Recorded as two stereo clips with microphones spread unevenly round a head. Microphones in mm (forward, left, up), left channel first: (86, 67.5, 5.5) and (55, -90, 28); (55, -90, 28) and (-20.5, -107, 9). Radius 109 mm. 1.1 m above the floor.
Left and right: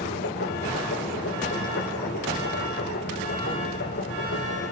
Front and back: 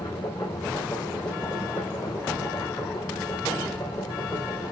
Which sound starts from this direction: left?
A machine running, at 0.0 s.